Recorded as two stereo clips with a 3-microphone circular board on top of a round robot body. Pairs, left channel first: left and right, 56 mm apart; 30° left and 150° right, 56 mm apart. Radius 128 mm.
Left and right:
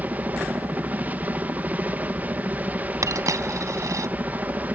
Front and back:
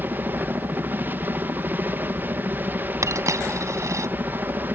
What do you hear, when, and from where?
0.0 s a helicopter: 130° right
3.0 s a dropped coin: 115° right